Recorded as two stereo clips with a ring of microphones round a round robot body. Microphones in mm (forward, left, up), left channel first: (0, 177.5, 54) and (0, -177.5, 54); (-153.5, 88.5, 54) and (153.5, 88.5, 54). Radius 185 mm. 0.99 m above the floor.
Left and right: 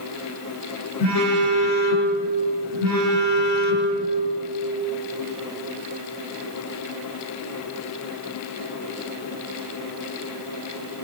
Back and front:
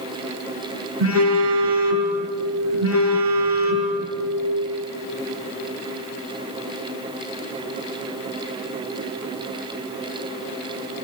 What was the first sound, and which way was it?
A phone buzzing, 45° left.